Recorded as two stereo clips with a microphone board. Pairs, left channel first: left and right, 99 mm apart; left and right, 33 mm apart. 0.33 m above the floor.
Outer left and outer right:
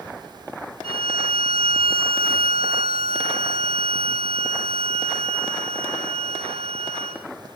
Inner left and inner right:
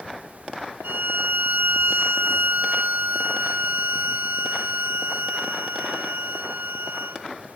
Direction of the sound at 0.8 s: 75° right (ahead or behind).